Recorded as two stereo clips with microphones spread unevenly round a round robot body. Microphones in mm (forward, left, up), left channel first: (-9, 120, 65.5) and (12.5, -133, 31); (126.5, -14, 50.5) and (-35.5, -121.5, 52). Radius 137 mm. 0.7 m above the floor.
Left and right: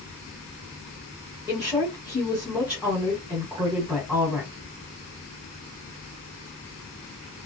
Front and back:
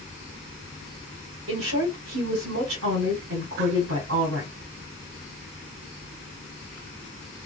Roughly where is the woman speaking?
Behind.